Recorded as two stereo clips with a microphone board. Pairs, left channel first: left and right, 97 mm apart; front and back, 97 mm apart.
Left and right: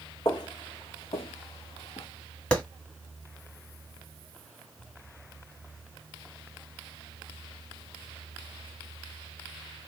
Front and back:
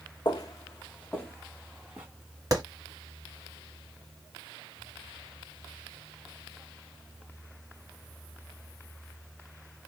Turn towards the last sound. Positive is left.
turn(degrees=160)